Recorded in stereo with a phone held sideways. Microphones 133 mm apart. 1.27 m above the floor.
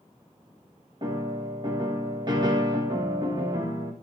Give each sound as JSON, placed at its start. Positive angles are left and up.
{"t": 1.0, "sound": "a piano", "side_deg": -35, "distance_m": 1.9}